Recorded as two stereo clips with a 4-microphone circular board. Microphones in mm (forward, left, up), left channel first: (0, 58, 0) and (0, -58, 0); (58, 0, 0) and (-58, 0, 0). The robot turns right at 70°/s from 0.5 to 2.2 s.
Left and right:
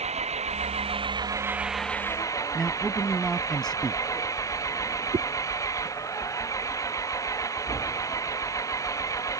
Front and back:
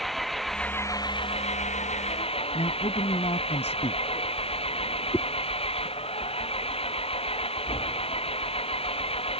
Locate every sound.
0.0 s an engine running: 90° right; by 9.4 s 30° left
2.5 s a man speaking: 5° left
5.1 s a whoosh: 65° right